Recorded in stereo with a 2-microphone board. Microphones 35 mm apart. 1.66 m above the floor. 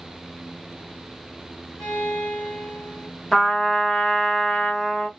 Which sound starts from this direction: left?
A violin, at 1.8 s.